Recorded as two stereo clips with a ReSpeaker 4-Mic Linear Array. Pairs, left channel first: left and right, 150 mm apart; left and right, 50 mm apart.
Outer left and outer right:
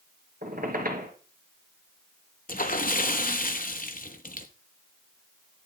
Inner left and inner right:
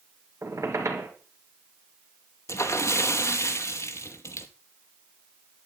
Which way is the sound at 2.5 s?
70° left (ahead or behind).